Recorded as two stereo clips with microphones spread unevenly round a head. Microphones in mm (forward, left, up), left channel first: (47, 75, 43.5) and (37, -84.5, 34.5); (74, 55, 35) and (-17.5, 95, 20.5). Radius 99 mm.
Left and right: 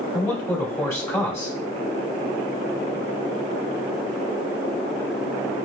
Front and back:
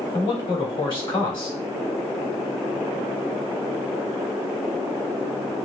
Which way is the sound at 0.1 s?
15° left.